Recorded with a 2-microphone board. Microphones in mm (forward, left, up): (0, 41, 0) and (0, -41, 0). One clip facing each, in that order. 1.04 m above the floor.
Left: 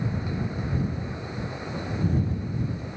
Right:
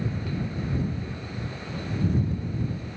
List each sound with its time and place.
Only background noise.